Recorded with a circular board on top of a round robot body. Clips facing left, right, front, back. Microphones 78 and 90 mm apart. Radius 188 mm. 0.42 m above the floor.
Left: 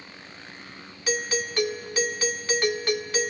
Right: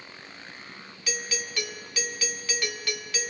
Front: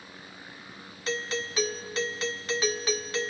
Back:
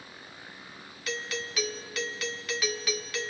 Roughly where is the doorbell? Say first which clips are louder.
Left 7 dB, front 4 dB; ahead left.